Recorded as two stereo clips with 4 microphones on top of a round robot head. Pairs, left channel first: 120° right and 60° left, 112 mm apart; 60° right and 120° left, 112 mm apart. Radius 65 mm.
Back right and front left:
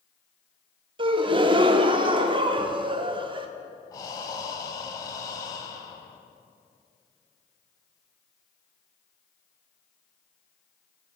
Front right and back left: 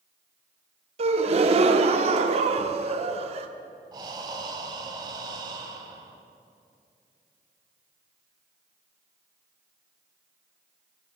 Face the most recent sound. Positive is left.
turn(degrees=180)